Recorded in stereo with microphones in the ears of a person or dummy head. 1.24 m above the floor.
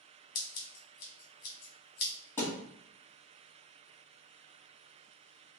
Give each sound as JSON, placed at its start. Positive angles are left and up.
{"t": 0.3, "sound": "scissors", "side_deg": 55, "distance_m": 1.3}
{"t": 2.4, "sound": "a thud", "side_deg": 15, "distance_m": 1.9}